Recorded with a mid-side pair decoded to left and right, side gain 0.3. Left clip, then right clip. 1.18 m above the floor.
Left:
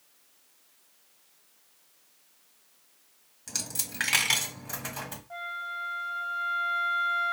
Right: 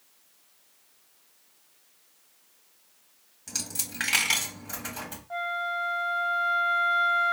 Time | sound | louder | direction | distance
3.5 | a dropped coin | right 1 dB | 25° left | 1.7 m
5.3 | a flute | right 7 dB | 30° right | 1.2 m